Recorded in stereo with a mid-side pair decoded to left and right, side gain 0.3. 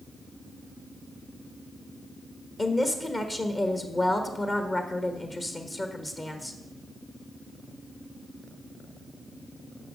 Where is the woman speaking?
40° left, 1.1 m.